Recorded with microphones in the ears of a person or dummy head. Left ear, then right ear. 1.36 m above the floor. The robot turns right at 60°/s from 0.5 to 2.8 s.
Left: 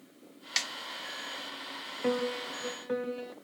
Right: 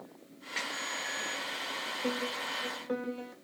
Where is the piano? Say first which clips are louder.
Left 6 dB; 115° left, 0.6 m; by 3.3 s 160° left, 0.6 m.